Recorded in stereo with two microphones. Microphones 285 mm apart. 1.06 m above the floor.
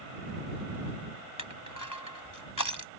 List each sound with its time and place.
1.4 s crushing: 80° left